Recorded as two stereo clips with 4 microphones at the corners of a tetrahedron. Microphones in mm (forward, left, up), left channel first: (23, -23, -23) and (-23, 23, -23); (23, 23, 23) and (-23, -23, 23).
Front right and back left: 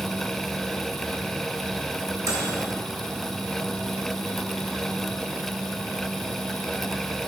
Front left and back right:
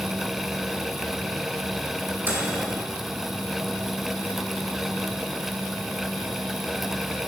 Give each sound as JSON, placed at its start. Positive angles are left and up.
{"t": 2.2, "sound": "a microwave", "azimuth_deg": 170, "distance_m": 2.0}